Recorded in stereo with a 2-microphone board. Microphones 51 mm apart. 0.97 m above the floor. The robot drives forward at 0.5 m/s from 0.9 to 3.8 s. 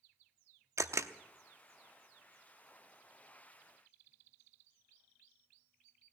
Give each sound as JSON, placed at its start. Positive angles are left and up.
{"t": 0.8, "sound": "a camera shutter", "side_deg": -70, "distance_m": 0.8}